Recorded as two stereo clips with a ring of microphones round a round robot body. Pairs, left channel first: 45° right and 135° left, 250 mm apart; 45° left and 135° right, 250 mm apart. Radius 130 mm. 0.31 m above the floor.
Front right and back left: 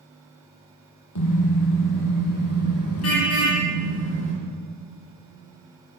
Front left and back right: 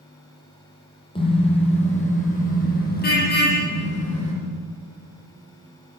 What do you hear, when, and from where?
1.1 s a car horn: 25° right, 7.5 m; by 4.3 s straight ahead, 8.5 m